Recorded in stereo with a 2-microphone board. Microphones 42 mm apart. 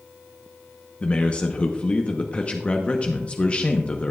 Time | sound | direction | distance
1.0 | a man speaking | 30° left (ahead or behind) | 0.8 m